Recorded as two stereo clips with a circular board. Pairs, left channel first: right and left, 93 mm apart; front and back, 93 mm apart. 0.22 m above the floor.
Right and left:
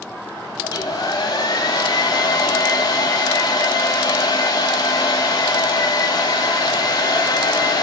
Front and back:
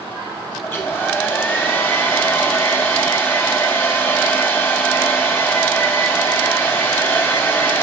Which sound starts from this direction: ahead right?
A hair dryer, at 0.6 s.